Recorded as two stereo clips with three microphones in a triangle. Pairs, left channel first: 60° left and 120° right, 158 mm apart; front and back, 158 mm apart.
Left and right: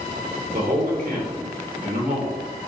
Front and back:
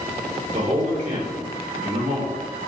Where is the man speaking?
140° right, 2 m.